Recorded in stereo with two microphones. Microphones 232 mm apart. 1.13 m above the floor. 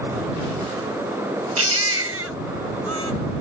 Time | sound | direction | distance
1.6 | a baby crying | 80° right | ?